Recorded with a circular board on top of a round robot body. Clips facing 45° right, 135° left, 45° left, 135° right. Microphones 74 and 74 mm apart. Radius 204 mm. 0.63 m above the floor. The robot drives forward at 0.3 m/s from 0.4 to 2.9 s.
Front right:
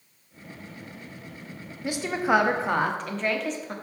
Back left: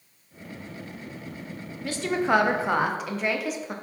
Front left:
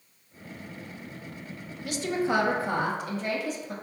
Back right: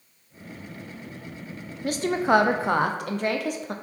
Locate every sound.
1.8 s a woman speaking: 110° right, 0.6 m; by 3.8 s 140° right, 0.8 m